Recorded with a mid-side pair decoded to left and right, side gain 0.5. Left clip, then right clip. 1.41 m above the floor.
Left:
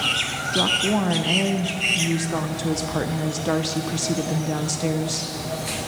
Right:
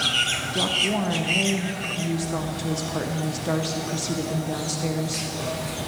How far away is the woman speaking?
About 0.7 m.